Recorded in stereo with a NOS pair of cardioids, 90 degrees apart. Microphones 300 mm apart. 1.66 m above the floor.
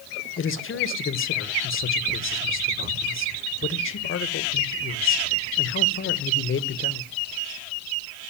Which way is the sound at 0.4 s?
45° left.